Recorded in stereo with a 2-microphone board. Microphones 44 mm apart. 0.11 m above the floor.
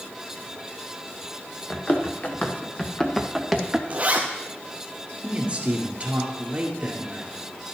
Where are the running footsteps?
40° left (ahead or behind), 2 m; by 3.8 s 10° right (ahead or behind), 1.4 m.